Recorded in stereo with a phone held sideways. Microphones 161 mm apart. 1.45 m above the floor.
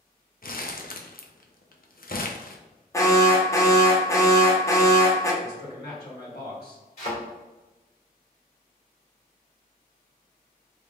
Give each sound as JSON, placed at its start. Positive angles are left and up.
{"t": 0.4, "sound": "crumpling", "side_deg": 65, "distance_m": 0.5}
{"t": 2.9, "sound": "an alarm", "side_deg": 20, "distance_m": 0.8}
{"t": 5.4, "sound": "a man speaking", "side_deg": 85, "distance_m": 1.9}
{"t": 7.0, "sound": "a thud", "side_deg": 50, "distance_m": 1.8}